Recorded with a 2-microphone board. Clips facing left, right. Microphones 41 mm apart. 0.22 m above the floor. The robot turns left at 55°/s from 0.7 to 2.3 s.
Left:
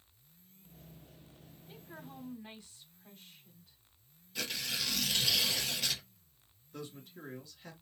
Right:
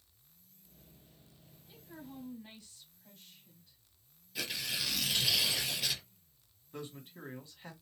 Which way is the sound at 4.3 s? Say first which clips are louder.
Even; 5° right (ahead or behind).